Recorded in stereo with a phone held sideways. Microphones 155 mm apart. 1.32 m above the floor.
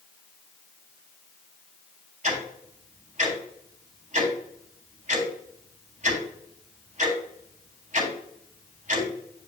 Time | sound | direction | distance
2.2 | ticking | 55° right (ahead or behind) | 3.5 m